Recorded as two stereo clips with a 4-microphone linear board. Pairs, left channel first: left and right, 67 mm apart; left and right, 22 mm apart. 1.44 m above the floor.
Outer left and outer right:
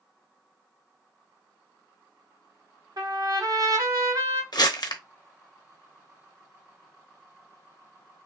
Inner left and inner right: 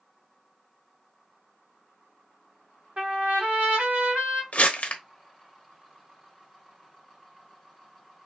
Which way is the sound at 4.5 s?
70° left (ahead or behind).